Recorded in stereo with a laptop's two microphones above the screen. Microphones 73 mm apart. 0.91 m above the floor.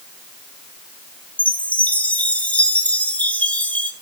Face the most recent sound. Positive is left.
turn(degrees=20)  # may be behind; listen again after turning